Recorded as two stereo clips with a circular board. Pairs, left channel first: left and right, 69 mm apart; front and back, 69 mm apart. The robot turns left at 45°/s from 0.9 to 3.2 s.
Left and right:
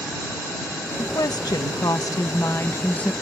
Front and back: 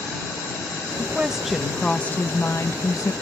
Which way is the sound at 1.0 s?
115° left.